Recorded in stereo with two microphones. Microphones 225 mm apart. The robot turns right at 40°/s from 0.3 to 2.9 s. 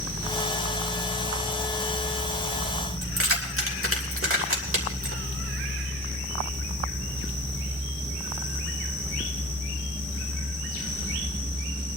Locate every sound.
3.0 s keys jangling: 65° right (ahead or behind), 3 m